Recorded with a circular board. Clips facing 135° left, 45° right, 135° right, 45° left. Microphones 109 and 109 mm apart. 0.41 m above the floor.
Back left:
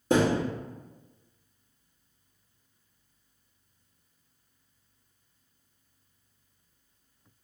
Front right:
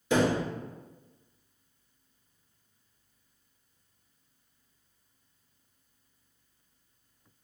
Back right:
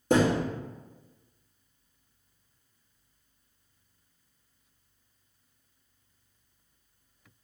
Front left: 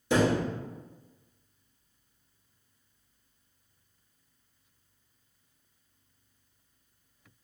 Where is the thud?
175° right, 1.7 m.